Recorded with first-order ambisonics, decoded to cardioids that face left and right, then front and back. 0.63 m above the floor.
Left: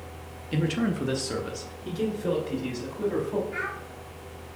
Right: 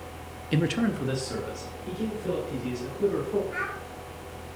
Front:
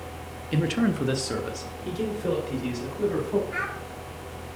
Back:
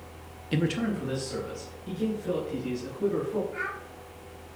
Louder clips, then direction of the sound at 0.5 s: Right 1 dB, front 3 dB; 105° right.